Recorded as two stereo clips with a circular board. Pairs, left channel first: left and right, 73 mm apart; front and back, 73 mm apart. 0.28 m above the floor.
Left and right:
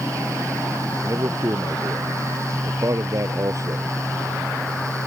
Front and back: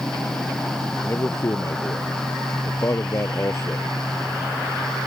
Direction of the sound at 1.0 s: 50° right.